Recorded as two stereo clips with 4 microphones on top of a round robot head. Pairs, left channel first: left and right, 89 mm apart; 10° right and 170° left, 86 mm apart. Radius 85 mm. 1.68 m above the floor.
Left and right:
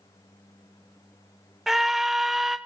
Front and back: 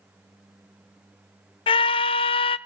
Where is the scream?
Straight ahead, 0.8 m.